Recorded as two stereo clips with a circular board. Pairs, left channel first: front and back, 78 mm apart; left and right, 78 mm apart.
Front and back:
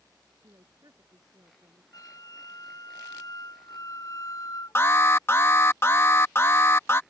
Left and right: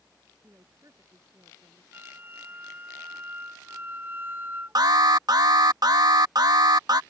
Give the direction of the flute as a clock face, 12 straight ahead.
1 o'clock.